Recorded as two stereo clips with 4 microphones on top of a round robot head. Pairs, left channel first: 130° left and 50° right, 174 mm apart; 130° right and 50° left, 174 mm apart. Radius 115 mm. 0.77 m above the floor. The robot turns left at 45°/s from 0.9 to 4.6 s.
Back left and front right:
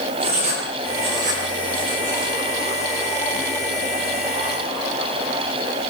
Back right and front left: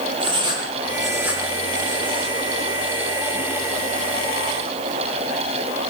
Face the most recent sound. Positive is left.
turn(degrees=180)